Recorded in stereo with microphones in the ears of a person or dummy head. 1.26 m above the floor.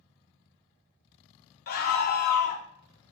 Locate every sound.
1.7 s a scream: 50° left (ahead or behind), 0.7 m